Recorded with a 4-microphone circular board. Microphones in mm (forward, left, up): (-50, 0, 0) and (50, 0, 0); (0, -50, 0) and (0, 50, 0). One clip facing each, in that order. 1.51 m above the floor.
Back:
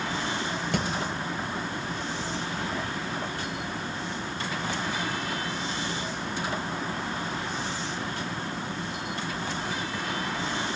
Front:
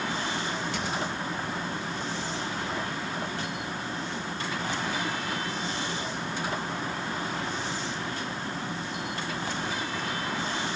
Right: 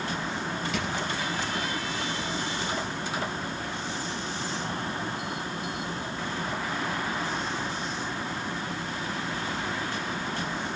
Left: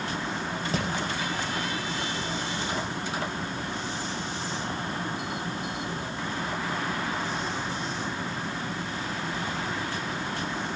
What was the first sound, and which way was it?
Hammering, 145° left.